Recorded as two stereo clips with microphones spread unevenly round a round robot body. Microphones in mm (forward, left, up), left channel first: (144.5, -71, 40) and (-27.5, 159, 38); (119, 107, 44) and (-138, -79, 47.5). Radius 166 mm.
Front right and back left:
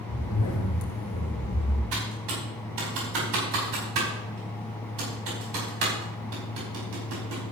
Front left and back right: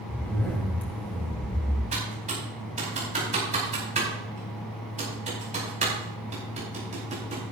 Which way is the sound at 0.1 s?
50° right.